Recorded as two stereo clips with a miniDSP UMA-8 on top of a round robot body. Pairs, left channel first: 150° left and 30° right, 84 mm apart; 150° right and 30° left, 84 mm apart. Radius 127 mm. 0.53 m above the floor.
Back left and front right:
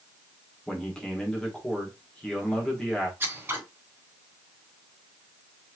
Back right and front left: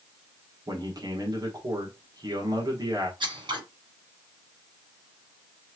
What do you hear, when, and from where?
0.7 s a man speaking: 70° left, 2 m
3.2 s scissors: 35° left, 2.5 m